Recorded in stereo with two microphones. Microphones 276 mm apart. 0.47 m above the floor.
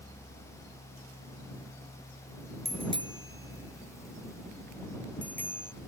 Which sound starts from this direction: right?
A bicycle bell, at 2.6 s.